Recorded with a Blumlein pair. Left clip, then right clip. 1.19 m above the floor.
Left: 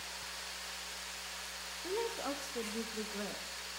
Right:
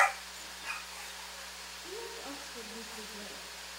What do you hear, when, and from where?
1.8 s a woman speaking: 20° left, 1.6 m